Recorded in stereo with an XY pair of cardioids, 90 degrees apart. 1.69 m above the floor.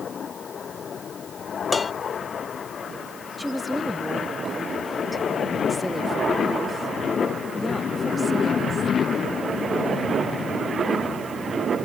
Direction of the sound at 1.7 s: 25° left.